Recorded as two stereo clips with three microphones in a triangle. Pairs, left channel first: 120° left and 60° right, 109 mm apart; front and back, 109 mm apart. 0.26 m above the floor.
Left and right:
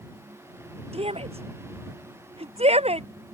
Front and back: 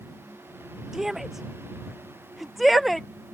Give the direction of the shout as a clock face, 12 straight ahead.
3 o'clock.